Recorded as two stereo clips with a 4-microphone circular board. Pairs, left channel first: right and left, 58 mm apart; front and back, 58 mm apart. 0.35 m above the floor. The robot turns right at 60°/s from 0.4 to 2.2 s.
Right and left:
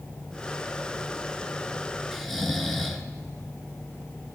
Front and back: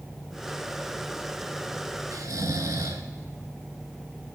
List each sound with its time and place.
2.1 s snoring: straight behind, 0.7 m; by 3.0 s 175° right, 0.7 m